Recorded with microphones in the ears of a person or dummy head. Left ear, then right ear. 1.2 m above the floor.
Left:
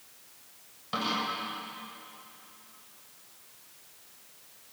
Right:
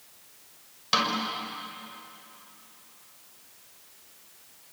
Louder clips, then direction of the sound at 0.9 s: Right 5 dB; 85° right.